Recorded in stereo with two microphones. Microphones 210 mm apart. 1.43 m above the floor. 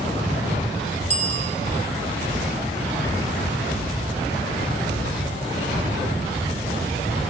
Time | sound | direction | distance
1.1 | a bicycle bell | 30° right (ahead or behind) | 6 m